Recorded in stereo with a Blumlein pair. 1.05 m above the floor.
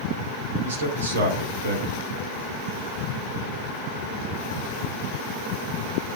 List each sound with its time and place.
0.6 s a man speaking: 65° right, 3.5 m